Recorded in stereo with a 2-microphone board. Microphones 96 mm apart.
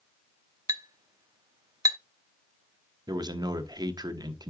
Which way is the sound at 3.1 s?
45° right (ahead or behind).